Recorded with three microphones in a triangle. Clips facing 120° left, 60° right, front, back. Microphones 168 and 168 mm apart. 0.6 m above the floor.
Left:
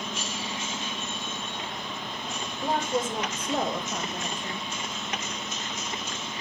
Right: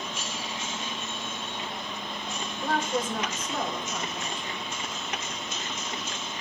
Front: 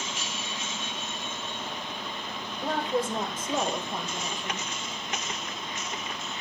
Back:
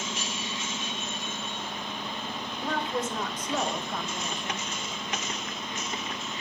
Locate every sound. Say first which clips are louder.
2.6 s a woman speaking: left 1 dB, front 3 dB; 50° left, 1.7 m; by 4.7 s 80° left, 2.5 m